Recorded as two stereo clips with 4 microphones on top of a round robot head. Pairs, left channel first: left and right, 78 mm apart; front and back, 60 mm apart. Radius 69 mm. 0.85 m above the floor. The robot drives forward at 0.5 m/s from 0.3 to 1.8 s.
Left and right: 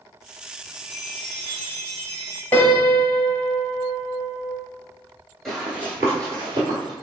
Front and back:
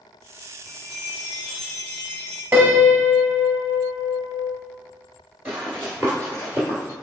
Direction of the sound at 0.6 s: Straight behind.